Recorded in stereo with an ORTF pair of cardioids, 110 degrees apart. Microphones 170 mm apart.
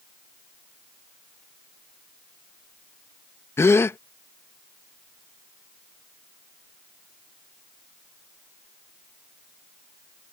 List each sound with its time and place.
3.6 s a gasp: 15° left